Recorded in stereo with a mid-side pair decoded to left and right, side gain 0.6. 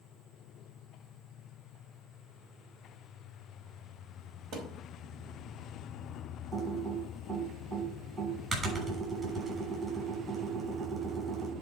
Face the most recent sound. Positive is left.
turn(degrees=-40)